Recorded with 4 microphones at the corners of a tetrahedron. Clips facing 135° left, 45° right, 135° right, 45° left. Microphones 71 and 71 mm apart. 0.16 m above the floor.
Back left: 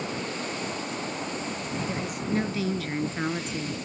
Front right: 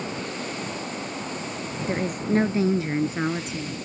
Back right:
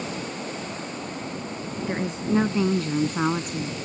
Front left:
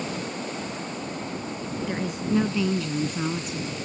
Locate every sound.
1.9 s a woman speaking: 70° right; by 3.8 s 140° right